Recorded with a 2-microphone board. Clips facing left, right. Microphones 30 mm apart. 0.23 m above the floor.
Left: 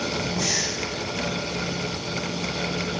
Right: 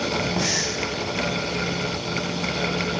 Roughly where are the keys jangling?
I don't hear keys jangling.